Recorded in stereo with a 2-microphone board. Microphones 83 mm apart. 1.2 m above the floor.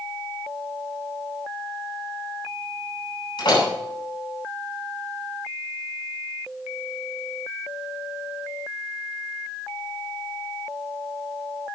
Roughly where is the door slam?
Left.